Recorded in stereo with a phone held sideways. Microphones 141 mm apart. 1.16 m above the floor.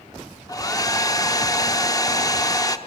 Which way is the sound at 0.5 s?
25° left (ahead or behind).